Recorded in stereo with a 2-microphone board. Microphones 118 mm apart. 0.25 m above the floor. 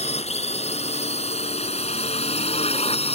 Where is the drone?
65° left (ahead or behind); by 3.1 s 60° left (ahead or behind).